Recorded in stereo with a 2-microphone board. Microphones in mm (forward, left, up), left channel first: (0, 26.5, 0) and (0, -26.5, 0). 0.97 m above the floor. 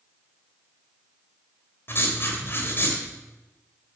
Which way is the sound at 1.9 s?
45° left (ahead or behind).